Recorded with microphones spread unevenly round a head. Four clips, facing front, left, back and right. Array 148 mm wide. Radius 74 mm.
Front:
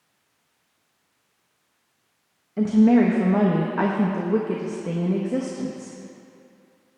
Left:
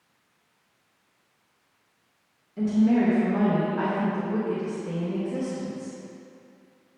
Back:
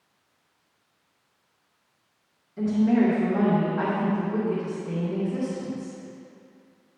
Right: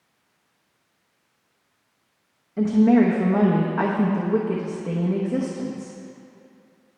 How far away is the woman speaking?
About 1.0 m.